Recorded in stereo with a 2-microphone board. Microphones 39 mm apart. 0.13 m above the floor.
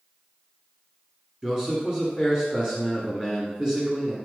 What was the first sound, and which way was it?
A man speaking, 20° right (ahead or behind).